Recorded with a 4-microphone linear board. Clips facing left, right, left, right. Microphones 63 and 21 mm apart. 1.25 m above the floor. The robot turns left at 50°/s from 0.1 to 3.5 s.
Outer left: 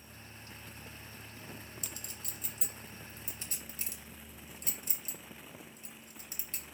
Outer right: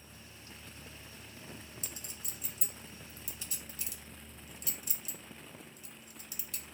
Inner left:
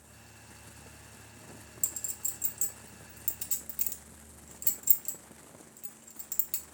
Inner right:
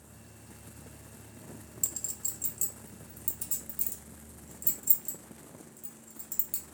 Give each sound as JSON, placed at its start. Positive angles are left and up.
{"t": 1.8, "sound": "a clink", "side_deg": -30, "distance_m": 1.5}